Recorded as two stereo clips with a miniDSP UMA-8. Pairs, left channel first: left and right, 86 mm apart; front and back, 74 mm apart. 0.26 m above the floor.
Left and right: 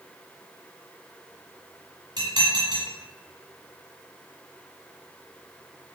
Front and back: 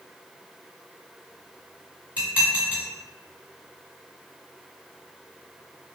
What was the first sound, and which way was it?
Dishes clattering, 110° right.